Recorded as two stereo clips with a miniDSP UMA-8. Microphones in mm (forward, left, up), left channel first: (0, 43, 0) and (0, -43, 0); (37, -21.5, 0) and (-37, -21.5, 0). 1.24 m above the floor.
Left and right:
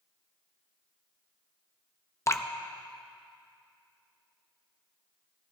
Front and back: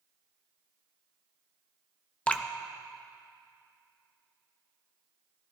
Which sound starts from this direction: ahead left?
Dripping, at 2.3 s.